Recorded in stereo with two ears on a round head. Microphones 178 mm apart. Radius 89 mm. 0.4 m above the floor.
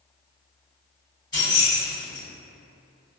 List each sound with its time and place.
1.3 s keys jangling: 25° left (ahead or behind), 1.9 m